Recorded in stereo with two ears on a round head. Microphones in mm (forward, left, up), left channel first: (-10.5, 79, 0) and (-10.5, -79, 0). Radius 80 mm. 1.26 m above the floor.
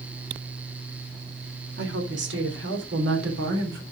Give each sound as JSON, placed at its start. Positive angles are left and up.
{"t": 1.8, "sound": "a woman speaking", "side_deg": -70, "distance_m": 2.5}